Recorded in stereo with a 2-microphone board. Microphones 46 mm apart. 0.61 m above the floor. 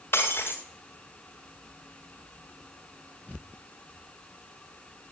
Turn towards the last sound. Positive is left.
turn(degrees=50)  # may be behind; listen again after turning